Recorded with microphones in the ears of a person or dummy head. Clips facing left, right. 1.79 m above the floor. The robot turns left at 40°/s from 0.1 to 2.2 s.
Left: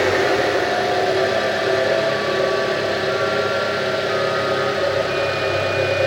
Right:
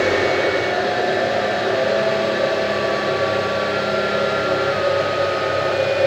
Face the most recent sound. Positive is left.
turn(degrees=20)